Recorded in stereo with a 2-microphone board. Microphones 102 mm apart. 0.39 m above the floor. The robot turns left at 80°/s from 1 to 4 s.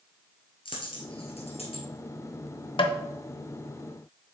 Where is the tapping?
60° left (ahead or behind), 0.7 m; by 3.0 s 55° left (ahead or behind), 0.7 m.